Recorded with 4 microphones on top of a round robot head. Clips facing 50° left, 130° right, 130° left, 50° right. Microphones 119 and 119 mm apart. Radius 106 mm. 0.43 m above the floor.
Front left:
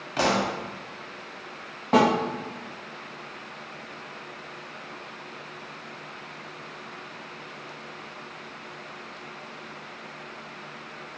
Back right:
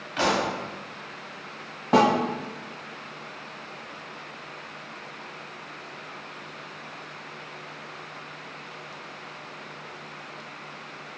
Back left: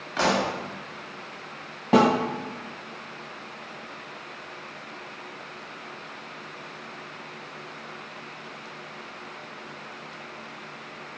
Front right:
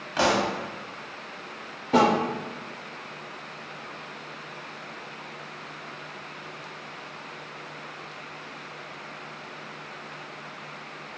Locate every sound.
0.2 s a pop: 25° left, 0.8 m
1.9 s a snare drum: 140° left, 1.0 m